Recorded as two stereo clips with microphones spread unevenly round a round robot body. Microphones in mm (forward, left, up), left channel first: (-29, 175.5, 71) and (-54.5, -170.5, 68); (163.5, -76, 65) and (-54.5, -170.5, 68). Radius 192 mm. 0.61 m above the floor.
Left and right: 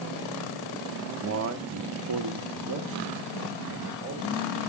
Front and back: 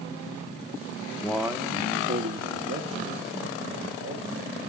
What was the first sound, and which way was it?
A man speaking, 55° right.